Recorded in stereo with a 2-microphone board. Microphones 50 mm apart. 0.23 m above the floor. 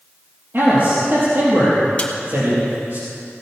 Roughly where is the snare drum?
Left.